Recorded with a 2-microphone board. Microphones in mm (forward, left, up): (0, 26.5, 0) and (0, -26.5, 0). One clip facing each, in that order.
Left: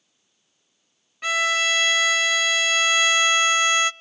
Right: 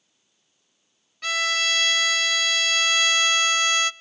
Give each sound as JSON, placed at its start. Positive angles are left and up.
{"t": 1.2, "sound": "a violin", "side_deg": 20, "distance_m": 0.6}